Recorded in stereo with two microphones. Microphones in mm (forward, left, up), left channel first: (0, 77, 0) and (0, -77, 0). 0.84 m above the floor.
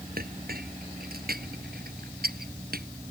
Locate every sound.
0.2 s a clink: 80° right